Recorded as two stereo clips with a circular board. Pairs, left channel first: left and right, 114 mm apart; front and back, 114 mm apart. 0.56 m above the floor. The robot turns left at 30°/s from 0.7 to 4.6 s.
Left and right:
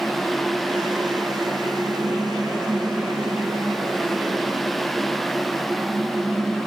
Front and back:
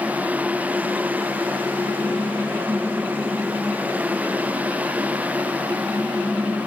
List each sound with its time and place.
Only background noise.